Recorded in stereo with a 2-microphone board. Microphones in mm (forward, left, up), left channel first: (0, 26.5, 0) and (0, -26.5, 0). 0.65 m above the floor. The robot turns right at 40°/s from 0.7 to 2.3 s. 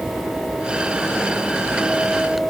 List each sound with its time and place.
Only background noise.